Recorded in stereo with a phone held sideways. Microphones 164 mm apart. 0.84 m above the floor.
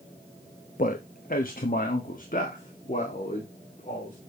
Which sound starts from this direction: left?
A man speaking, at 0.8 s.